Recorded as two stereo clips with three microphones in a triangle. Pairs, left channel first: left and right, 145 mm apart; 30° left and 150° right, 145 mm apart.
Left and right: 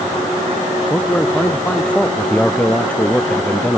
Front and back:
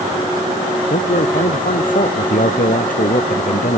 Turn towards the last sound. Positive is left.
turn(degrees=10)